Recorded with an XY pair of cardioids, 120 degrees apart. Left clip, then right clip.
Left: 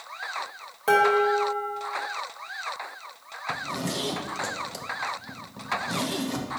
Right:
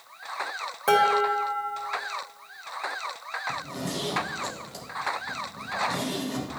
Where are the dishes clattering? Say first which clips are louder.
Left 1 dB; 15° right, 2.5 m.